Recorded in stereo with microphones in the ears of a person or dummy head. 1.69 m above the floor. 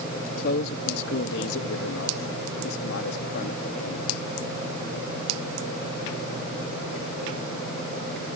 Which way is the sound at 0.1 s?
50° left (ahead or behind).